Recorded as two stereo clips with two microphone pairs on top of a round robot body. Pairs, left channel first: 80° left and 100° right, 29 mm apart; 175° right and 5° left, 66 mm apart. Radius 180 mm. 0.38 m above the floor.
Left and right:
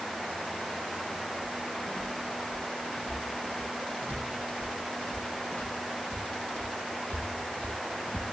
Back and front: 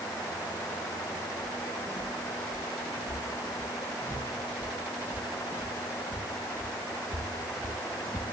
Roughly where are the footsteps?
Ahead left.